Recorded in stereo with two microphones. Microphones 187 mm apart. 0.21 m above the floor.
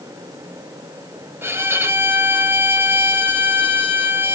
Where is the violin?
10° right (ahead or behind), 0.6 m.